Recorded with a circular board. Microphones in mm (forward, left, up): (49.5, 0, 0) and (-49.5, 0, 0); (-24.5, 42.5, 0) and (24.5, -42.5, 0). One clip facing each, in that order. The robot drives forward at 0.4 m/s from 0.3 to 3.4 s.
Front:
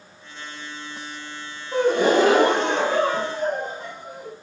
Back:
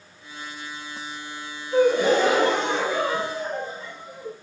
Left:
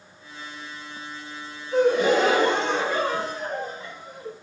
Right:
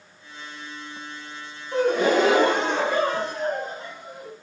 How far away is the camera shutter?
I don't hear a camera shutter.